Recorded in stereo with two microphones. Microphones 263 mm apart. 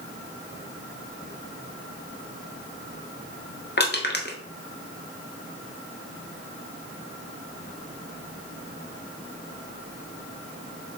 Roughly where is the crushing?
Left.